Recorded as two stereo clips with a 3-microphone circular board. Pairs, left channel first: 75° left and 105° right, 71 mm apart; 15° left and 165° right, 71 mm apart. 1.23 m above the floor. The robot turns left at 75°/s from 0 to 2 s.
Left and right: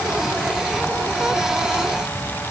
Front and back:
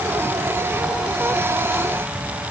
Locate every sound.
Only background noise.